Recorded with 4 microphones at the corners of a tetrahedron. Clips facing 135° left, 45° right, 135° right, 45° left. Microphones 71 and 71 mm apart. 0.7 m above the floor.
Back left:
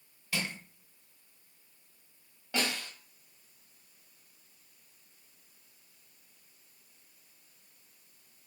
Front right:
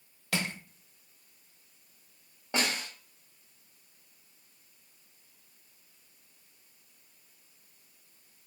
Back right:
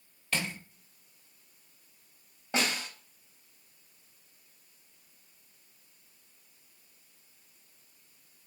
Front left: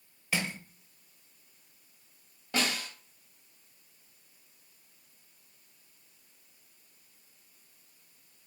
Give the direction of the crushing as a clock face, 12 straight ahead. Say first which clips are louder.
Front right 3 dB, front left 1 dB; 1 o'clock.